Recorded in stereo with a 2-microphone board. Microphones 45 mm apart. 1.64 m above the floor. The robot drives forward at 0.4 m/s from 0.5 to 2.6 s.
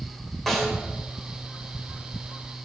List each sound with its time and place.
0.5 s a snare drum: 5° left (ahead or behind), 2.5 m